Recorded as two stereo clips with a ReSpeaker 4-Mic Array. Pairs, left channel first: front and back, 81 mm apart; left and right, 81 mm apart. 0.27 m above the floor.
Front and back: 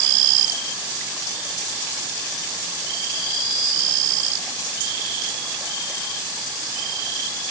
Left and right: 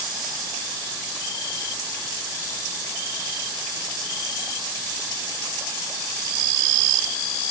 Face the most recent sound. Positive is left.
No sound to turn to.